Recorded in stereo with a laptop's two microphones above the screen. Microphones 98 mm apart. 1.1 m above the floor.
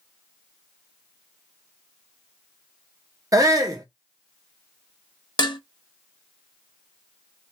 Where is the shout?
35° right (ahead or behind), 0.6 m.